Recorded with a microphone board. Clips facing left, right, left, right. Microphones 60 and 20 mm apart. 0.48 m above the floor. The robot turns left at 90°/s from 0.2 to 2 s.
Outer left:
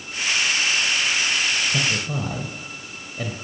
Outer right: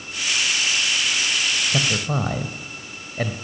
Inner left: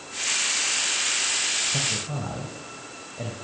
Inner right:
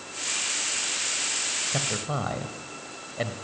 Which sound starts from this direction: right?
A man speaking, at 1.7 s.